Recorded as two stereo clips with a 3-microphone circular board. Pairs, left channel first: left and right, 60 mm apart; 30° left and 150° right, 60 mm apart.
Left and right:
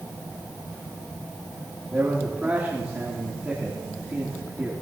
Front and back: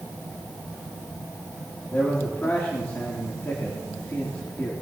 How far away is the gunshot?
I don't hear a gunshot.